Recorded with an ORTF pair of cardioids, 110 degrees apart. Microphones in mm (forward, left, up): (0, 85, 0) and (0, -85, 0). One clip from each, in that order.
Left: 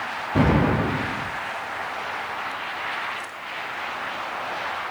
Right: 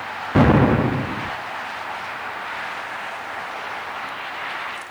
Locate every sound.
0.3 s an explosion: 35° right, 0.8 m